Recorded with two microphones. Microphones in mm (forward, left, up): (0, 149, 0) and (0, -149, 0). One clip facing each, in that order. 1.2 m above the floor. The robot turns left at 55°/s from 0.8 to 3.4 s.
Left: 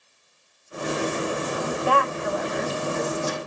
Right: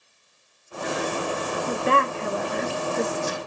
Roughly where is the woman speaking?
Centre.